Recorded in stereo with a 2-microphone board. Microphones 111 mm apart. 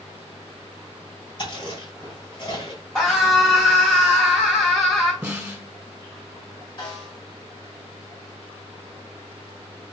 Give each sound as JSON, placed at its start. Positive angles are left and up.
{"t": 1.4, "sound": "chewing", "side_deg": 45, "distance_m": 2.5}
{"t": 3.0, "sound": "a scream", "side_deg": 15, "distance_m": 1.4}
{"t": 5.2, "sound": "a snare drum", "side_deg": -15, "distance_m": 1.5}
{"t": 6.8, "sound": "a snare drum", "side_deg": 45, "distance_m": 2.5}